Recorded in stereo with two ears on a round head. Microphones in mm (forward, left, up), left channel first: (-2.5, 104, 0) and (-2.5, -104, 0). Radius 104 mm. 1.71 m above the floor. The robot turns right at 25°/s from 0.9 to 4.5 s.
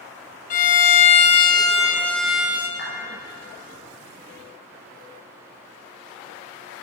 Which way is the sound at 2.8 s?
50° left (ahead or behind).